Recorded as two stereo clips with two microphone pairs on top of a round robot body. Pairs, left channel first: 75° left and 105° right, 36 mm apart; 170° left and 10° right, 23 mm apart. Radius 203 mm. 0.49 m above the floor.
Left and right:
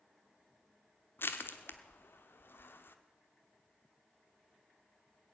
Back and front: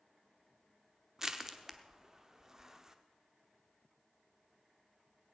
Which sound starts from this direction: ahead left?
Crushing, at 1.2 s.